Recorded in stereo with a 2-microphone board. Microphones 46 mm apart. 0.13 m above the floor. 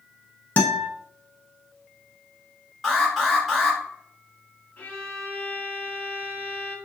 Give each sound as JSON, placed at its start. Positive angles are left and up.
{"t": 0.6, "sound": "a guitar", "side_deg": 30, "distance_m": 0.6}
{"t": 2.8, "sound": "an alarm", "side_deg": 5, "distance_m": 1.8}
{"t": 4.8, "sound": "a violin", "side_deg": 30, "distance_m": 1.1}